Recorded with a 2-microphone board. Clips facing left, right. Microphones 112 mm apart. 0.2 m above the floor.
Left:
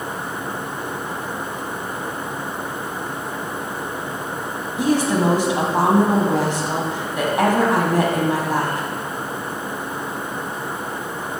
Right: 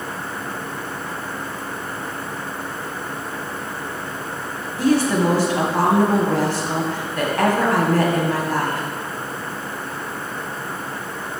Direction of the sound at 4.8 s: 20° left (ahead or behind).